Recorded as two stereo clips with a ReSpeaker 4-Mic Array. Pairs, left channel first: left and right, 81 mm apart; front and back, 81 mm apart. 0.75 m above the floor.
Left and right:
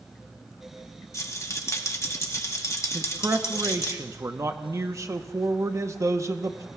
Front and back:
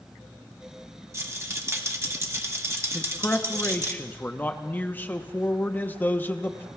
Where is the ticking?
I don't hear ticking.